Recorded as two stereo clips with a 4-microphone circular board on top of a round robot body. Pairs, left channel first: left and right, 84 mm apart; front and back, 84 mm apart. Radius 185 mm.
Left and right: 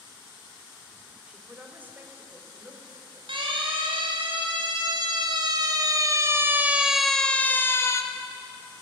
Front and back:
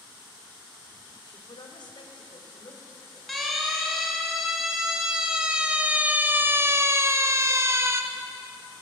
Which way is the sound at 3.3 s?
90° right.